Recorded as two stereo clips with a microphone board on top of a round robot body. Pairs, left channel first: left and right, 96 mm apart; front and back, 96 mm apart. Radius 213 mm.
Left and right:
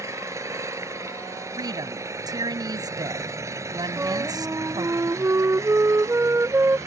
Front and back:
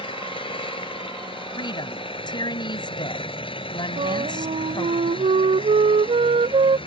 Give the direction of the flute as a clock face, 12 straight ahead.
5 o'clock.